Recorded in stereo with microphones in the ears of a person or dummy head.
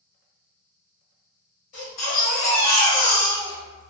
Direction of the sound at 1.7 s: 45° left (ahead or behind).